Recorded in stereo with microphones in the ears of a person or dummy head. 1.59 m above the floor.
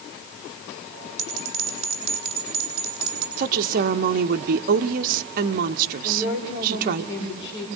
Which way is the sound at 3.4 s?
45° right (ahead or behind).